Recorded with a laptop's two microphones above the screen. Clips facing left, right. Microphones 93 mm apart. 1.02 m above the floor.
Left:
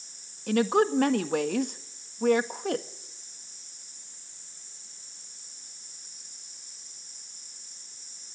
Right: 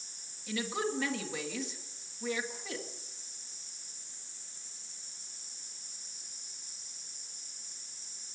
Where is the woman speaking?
55° left (ahead or behind), 1.6 m.